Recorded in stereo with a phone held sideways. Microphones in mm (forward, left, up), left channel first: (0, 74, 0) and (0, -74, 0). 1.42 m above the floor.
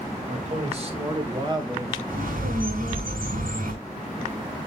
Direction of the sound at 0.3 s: 50° right (ahead or behind).